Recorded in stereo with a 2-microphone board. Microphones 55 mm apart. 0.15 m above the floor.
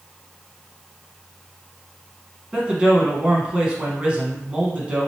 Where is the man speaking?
20° right (ahead or behind), 1.1 m.